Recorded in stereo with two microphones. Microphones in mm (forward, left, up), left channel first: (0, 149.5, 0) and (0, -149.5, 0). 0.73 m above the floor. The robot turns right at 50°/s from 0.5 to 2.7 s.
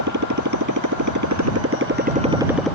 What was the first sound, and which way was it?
A motorcycle, 105° right.